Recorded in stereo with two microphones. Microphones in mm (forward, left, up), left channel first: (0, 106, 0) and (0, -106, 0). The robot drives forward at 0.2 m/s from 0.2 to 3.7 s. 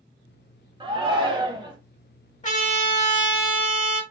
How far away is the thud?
I don't hear a thud.